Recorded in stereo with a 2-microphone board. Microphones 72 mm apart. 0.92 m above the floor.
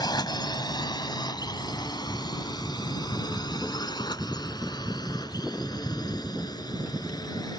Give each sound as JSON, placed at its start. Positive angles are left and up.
{"t": 0.0, "sound": "a drone", "side_deg": 75}